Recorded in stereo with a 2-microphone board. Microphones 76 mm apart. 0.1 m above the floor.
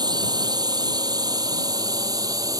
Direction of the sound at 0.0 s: 60° right (ahead or behind).